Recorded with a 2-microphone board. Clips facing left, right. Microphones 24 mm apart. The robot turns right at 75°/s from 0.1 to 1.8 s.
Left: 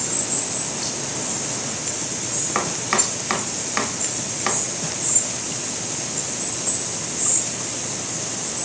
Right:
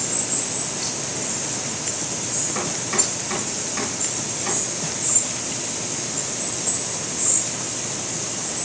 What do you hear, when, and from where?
2.5 s chopping: 50° left (ahead or behind), 1.0 m